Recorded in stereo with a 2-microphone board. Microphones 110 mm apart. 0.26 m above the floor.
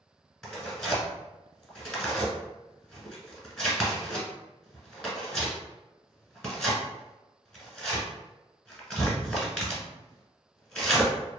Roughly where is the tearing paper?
Centre.